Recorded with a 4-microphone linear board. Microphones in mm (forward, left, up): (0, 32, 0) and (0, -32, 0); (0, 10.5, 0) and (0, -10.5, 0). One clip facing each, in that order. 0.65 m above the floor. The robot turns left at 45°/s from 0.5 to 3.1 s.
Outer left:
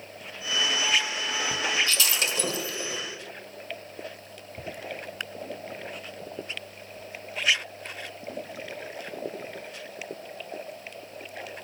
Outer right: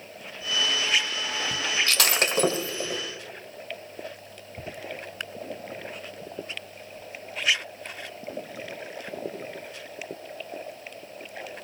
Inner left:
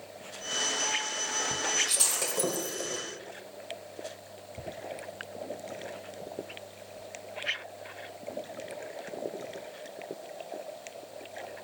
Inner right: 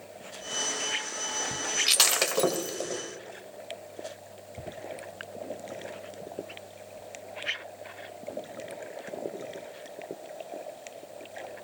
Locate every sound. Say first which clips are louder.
1.9 s breaking glass: outer right 3 dB, inner right 6 dB; 65° right (ahead or behind), 1.5 m; by 3.0 s 15° right (ahead or behind), 1.5 m